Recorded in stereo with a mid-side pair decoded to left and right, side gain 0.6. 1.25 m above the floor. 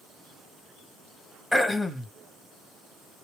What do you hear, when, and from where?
1.5 s throat clearing: 10° left, 1.6 m